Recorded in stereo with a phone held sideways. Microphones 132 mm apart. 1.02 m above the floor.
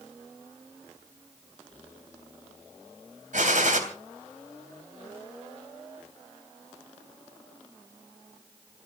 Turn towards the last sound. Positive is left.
turn(degrees=-75)  # may be behind; listen again after turning